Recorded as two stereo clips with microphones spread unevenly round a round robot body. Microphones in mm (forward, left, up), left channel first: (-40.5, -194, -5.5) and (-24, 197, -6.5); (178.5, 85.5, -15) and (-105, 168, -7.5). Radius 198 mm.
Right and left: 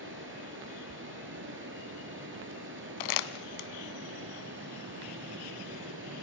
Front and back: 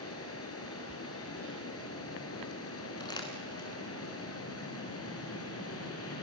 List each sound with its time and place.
0.0 s running water: 25° left, 4 m
3.0 s crumpling: 95° right, 1.3 m